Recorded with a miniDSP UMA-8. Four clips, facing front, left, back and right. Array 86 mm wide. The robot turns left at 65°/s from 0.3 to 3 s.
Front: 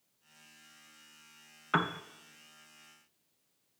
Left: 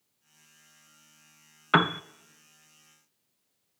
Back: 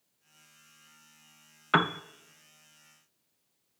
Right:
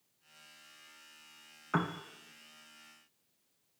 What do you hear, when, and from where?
1.7 s a piano: 115° left, 0.5 m; by 2.0 s 95° left, 0.5 m